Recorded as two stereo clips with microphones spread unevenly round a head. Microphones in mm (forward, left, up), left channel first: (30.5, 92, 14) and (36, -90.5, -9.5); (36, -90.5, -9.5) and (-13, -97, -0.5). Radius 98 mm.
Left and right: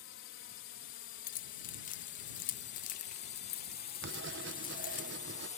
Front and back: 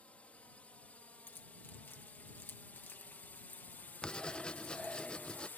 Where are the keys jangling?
70° left.